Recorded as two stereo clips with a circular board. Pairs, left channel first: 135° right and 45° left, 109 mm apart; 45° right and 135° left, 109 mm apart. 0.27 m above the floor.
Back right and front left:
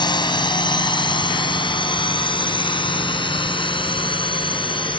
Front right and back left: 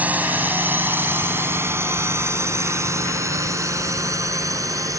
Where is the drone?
155° right; by 5.0 s 170° right.